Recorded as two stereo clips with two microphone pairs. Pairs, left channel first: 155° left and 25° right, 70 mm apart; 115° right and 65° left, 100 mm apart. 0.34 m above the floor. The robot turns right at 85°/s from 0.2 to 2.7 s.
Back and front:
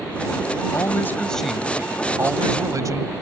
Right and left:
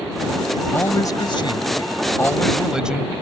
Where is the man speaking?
Straight behind; by 3.1 s 15° right.